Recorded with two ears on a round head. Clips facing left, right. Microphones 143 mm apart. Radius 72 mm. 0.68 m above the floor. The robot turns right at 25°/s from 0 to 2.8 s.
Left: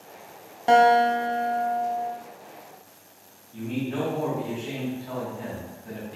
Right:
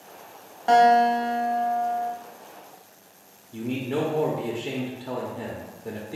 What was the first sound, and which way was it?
A guitar, 160° left.